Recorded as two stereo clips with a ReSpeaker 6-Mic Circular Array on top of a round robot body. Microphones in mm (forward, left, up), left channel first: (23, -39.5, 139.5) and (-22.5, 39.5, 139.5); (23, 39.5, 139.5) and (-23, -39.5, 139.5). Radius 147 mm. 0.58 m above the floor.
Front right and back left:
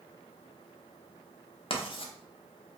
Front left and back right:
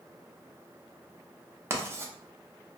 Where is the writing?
60° right, 0.6 m.